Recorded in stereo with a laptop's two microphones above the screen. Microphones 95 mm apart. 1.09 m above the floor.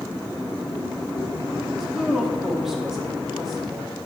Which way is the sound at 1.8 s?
5° right (ahead or behind).